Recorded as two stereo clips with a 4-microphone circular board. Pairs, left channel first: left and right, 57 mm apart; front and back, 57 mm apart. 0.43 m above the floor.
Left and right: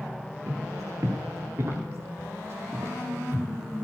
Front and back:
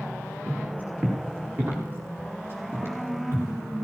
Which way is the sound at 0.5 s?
110° right.